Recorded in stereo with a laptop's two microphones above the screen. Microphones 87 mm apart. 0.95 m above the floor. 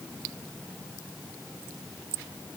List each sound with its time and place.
Only background noise.